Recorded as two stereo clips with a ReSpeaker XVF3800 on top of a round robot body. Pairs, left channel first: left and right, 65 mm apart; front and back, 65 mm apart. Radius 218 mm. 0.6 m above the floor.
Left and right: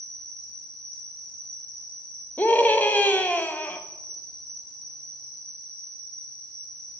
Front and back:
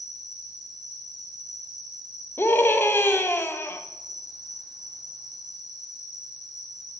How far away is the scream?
About 1.5 m.